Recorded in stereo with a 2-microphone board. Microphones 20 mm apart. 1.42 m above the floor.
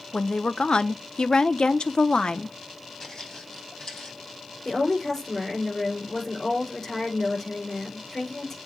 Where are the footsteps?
30° left (ahead or behind), 4 m; by 4.2 s 35° left (ahead or behind), 3 m.